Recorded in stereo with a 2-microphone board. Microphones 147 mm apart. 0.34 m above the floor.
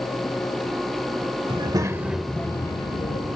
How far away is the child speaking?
About 1.1 m.